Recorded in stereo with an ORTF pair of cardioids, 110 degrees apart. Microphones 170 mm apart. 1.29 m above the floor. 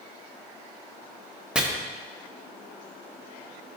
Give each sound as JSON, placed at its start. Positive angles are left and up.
{"t": 1.6, "sound": "chopping", "azimuth_deg": -5, "distance_m": 1.0}